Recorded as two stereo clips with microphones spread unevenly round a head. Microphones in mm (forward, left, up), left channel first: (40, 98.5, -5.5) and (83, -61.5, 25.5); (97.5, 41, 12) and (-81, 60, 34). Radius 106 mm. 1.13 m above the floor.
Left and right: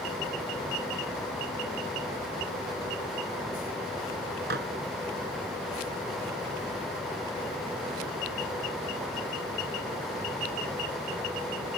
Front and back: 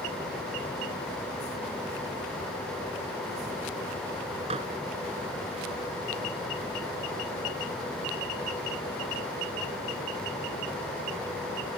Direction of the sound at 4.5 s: 120° right.